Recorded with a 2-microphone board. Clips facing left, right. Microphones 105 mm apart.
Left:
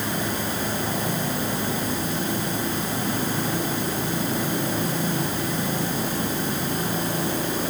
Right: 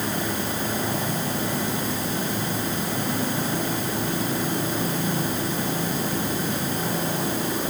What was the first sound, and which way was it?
Only background noise.